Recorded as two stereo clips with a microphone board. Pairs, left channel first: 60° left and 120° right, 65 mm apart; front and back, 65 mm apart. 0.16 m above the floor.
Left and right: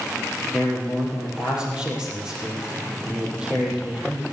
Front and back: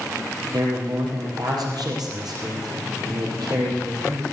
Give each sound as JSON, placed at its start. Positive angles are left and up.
{"t": 0.5, "sound": "a man speaking", "azimuth_deg": 165, "distance_m": 5.0}